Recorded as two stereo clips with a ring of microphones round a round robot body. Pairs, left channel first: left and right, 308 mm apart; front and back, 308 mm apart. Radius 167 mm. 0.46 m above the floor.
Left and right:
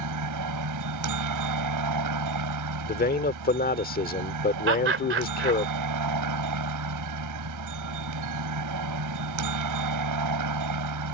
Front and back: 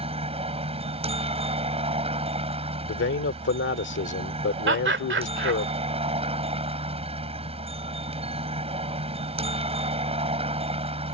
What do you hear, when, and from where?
0.0 s a helicopter: 110° right
2.9 s a man speaking: 40° left
4.7 s laughter: 135° right